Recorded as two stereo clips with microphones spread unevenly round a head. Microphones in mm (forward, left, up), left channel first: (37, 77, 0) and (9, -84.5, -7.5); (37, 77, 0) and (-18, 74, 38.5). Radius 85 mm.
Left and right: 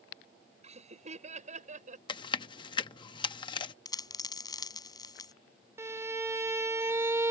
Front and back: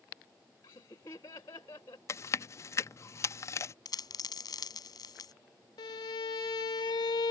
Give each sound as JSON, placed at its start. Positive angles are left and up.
{"t": 0.6, "sound": "laughter", "azimuth_deg": -50}
{"t": 2.1, "sound": "chewing", "azimuth_deg": 65}
{"t": 3.9, "sound": "a dropped coin", "azimuth_deg": 15}
{"t": 5.8, "sound": "a violin", "azimuth_deg": -35}